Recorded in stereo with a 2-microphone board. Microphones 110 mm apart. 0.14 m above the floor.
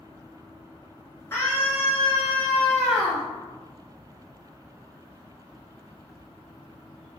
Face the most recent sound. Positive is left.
turn(degrees=0)  # may be behind; listen again after turning